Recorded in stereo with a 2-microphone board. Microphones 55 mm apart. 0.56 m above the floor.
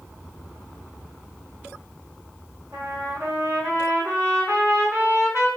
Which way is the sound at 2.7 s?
40° right (ahead or behind).